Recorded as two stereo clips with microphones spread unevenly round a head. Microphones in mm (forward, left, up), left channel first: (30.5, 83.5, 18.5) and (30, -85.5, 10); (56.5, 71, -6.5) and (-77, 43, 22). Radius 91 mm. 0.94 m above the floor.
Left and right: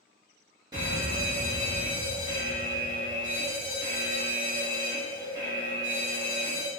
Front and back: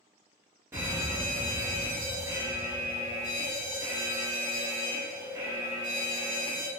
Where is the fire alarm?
85° right, 1.3 m.